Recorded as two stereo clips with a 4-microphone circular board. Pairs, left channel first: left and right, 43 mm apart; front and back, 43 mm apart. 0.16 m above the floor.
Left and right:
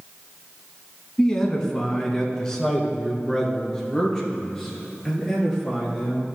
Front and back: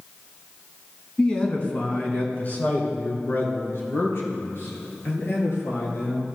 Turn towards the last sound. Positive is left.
turn(degrees=10)